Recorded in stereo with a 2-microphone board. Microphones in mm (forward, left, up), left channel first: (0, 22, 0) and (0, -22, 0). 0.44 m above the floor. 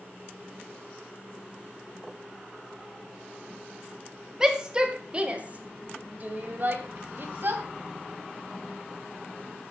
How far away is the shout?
About 1.7 m.